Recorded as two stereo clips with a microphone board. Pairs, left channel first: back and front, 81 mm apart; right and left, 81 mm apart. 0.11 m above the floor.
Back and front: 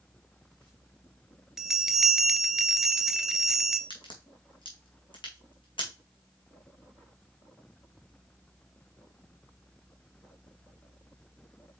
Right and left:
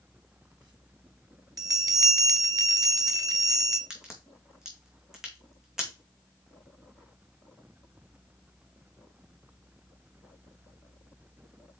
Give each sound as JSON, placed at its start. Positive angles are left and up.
{"t": 1.6, "sound": "a bell", "azimuth_deg": 85, "distance_m": 0.8}
{"t": 3.9, "sound": "a crack", "azimuth_deg": 170, "distance_m": 2.5}